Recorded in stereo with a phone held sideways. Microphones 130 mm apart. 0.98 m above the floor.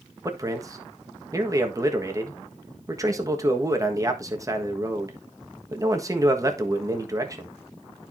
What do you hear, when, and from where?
0.2 s a man speaking: 25° right (ahead or behind), 1.4 m